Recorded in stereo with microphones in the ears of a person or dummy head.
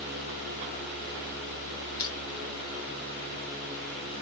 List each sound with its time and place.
2.0 s crushing: 20° left (ahead or behind), 0.7 m